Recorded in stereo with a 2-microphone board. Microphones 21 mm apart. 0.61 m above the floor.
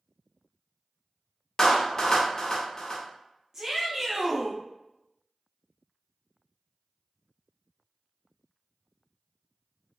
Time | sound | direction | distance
1.6 | a clap | 30° left (ahead or behind) | 0.8 m
3.5 | a shout | 20° right (ahead or behind) | 0.8 m